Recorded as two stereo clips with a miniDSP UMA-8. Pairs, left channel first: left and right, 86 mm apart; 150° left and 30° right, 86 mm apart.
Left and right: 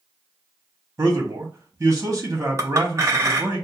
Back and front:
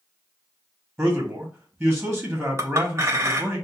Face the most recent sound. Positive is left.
turn(degrees=-60)